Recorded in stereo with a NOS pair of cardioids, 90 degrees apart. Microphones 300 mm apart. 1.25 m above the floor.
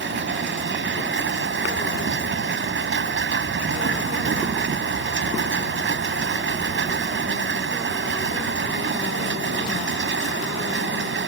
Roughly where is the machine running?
Ahead right.